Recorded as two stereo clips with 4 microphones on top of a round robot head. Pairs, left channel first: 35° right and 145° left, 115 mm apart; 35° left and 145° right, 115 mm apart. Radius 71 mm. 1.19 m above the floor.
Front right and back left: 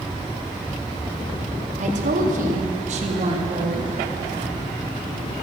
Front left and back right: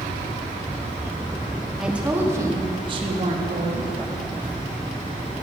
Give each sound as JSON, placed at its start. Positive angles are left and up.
{"t": 1.8, "sound": "a woman speaking", "azimuth_deg": 130, "distance_m": 2.5}